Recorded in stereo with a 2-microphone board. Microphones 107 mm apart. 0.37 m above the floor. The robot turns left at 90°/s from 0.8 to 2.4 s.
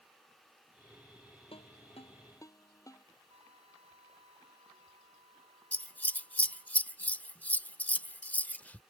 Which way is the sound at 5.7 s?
15° left (ahead or behind).